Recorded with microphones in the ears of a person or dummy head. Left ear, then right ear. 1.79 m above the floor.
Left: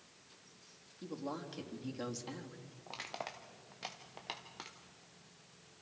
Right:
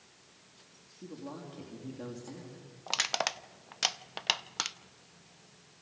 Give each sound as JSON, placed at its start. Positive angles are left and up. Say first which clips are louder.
{"t": 1.0, "sound": "a woman speaking", "louder": "left 2 dB", "side_deg": 60, "distance_m": 3.5}
{"t": 2.9, "sound": "crushing", "louder": "right 13 dB", "side_deg": -55, "distance_m": 0.7}